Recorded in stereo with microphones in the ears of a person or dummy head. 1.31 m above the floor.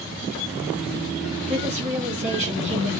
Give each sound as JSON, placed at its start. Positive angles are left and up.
{"t": 1.5, "sound": "a woman speaking", "side_deg": -35, "distance_m": 1.9}